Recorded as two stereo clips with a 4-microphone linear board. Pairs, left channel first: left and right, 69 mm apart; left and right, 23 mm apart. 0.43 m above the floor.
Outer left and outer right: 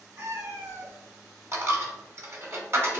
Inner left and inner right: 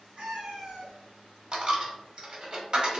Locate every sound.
0.2 s a cat meowing: 65° right (ahead or behind), 2.0 m
1.5 s a dropped coin: 40° right (ahead or behind), 0.7 m